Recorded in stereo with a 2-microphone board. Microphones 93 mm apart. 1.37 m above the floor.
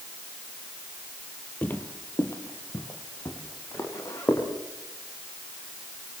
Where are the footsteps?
20° left (ahead or behind), 2.0 m; by 4.5 s 35° left (ahead or behind), 5 m.